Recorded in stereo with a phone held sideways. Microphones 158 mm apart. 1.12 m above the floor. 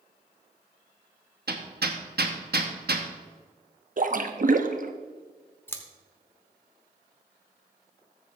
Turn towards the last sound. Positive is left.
turn(degrees=15)  # may be behind; listen again after turning